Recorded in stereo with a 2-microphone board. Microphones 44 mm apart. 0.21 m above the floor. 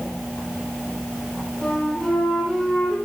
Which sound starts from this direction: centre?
A flute, at 1.6 s.